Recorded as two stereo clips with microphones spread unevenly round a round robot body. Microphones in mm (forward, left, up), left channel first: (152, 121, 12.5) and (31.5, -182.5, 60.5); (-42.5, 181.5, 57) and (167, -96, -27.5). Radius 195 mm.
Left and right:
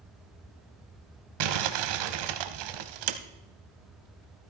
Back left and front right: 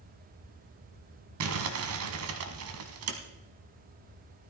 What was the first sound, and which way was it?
Crumpling, 110° right.